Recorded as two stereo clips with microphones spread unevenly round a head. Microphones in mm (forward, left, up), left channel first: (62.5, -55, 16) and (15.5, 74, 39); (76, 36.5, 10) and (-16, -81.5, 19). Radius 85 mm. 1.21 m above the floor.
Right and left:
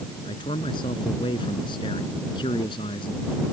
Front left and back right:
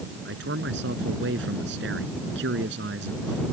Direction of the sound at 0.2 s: 135° right.